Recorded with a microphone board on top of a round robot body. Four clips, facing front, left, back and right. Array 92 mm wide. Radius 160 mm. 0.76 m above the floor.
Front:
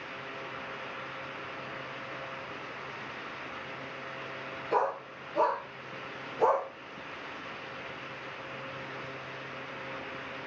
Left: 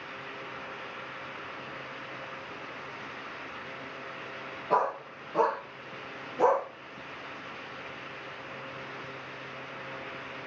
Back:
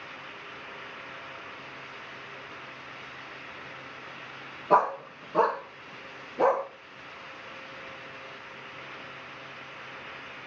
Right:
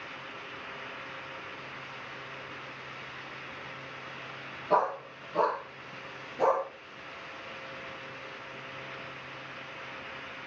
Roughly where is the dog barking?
Behind.